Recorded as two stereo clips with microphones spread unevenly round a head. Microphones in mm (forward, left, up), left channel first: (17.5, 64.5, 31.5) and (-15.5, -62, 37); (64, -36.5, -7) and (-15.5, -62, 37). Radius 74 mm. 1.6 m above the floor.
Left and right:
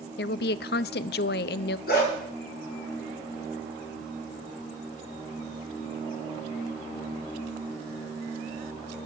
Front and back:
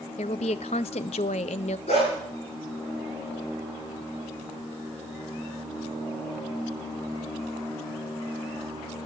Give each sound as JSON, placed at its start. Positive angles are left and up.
{"t": 0.2, "sound": "a woman speaking", "azimuth_deg": 65, "distance_m": 0.5}
{"t": 1.9, "sound": "a dog barking", "azimuth_deg": 60, "distance_m": 7.0}